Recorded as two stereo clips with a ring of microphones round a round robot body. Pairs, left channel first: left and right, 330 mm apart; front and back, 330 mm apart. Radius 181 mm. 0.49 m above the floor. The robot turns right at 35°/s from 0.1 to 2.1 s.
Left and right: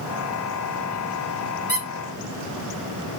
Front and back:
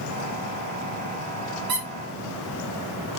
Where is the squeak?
165° right, 1.9 m; by 1.9 s 160° right, 1.9 m.